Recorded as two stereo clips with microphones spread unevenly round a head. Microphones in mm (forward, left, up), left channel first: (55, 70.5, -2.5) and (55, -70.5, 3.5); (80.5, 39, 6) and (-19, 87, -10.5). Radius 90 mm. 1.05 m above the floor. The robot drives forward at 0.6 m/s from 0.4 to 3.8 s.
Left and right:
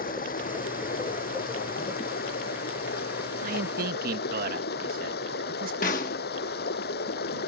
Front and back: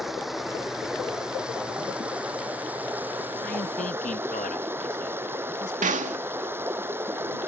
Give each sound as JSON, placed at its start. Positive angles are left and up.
{"t": 0.0, "sound": "running water", "azimuth_deg": 65}
{"t": 3.4, "sound": "a man speaking", "azimuth_deg": -70}
{"t": 5.8, "sound": "a snare drum", "azimuth_deg": 145}